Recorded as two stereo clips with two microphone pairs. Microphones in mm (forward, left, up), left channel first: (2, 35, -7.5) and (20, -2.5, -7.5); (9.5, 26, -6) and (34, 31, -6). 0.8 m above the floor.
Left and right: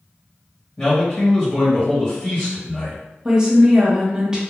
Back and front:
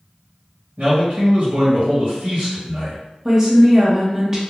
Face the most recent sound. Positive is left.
turn(degrees=-15)